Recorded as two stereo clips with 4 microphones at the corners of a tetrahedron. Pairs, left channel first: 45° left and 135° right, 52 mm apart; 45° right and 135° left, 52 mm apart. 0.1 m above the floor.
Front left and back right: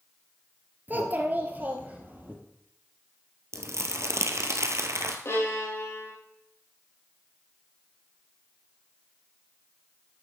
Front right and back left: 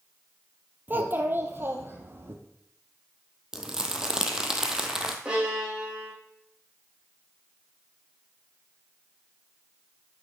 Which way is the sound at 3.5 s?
145° right.